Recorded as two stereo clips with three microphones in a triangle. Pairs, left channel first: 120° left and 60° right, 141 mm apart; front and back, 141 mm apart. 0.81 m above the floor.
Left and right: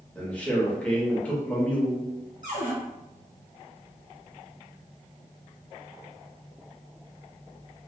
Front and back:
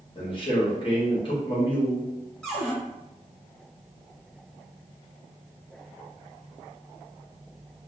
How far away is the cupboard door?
About 1.0 m.